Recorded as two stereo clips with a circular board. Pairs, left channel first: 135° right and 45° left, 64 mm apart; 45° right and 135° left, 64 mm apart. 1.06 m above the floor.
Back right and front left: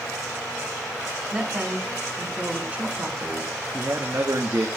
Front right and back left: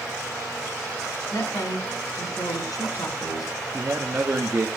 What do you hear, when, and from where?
1.3 s a woman speaking: 15° right, 4.5 m
3.7 s a man speaking: 75° left, 1.4 m